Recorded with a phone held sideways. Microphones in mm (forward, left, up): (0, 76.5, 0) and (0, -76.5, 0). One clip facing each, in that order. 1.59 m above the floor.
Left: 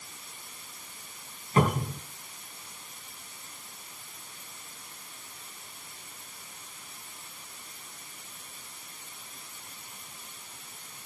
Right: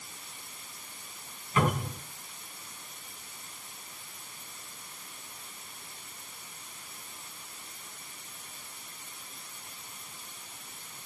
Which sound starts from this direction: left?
A cupboard door, at 1.6 s.